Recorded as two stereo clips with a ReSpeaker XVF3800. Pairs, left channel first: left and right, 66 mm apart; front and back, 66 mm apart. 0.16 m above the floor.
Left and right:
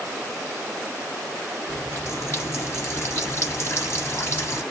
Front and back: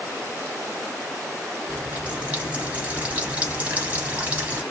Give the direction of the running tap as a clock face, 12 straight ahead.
8 o'clock.